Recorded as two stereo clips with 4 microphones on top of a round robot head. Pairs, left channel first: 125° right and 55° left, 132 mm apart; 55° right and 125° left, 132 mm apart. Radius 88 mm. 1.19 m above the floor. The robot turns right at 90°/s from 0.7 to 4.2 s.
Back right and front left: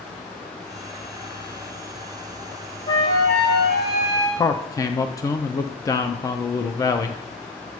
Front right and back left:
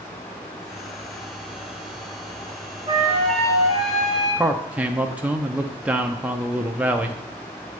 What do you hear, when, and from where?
2.9 s a flute: straight behind, 1.1 m; by 4.4 s 60° right, 1.1 m
4.4 s a man speaking: 165° right, 0.5 m